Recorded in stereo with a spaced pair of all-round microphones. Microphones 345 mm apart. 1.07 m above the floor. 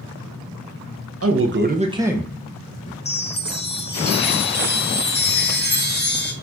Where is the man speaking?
45° right (ahead or behind), 0.6 m; by 3.0 s 20° left (ahead or behind), 0.8 m.